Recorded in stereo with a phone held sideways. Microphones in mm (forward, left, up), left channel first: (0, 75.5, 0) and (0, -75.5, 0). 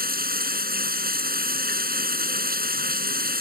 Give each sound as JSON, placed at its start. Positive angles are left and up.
{"t": 0.0, "sound": "running water", "side_deg": -80}